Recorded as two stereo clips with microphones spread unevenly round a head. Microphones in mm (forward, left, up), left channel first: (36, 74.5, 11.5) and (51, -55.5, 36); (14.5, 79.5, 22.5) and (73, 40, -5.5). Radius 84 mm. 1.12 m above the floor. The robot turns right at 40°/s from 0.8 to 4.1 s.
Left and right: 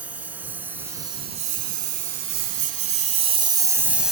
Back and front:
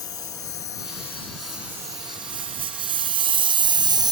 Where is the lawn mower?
160° right; by 4.1 s straight ahead.